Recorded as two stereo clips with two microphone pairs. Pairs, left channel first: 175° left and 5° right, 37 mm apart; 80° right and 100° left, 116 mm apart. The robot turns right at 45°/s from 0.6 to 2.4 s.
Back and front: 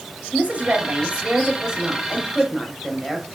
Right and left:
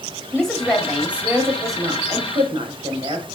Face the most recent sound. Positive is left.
turn(degrees=85)